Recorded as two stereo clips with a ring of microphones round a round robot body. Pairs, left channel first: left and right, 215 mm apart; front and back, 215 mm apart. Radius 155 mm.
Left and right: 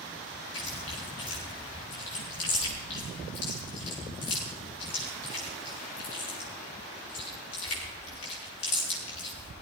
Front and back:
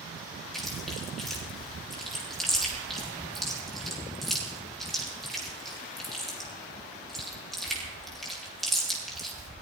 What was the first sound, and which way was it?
Chewing, 90° left.